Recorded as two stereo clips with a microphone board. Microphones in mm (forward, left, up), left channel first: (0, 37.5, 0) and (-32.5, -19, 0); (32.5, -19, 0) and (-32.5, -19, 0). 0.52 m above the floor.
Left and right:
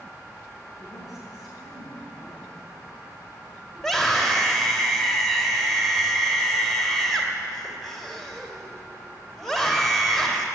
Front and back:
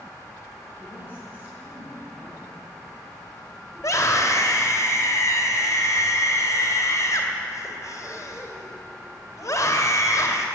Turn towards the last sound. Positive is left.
turn(degrees=-30)